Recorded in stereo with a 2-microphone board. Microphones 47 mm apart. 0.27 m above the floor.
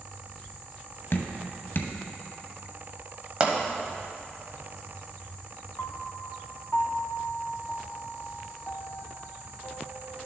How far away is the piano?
About 0.5 m.